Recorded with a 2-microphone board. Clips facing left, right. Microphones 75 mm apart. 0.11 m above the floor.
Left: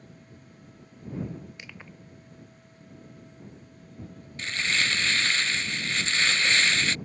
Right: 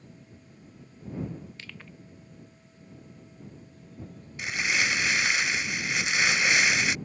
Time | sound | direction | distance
1.6 | crushing | 15° left (ahead or behind) | ?
4.4 | crumpling | 15° right (ahead or behind) | ?